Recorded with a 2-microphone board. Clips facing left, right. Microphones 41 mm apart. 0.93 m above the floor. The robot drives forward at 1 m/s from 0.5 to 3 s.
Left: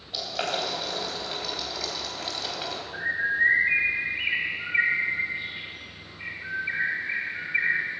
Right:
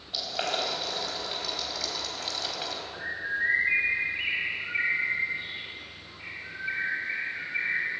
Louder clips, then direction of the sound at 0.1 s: Left 1 dB; 5° left (ahead or behind).